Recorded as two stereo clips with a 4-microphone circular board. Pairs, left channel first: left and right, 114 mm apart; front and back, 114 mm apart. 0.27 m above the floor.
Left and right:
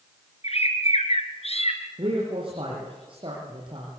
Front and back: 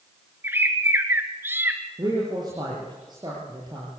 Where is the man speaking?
130° right, 6.5 m.